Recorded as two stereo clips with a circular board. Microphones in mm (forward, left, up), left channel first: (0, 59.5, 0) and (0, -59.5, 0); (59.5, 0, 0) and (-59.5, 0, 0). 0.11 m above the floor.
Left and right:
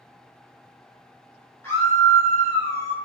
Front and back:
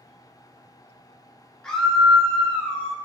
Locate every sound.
1.6 s a scream: 65° left, 1.2 m